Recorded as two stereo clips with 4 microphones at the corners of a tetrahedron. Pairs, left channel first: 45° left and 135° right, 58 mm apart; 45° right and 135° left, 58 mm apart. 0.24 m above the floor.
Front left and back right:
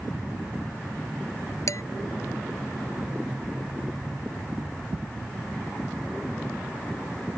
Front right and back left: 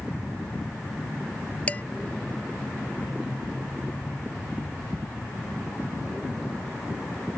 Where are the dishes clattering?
20° left.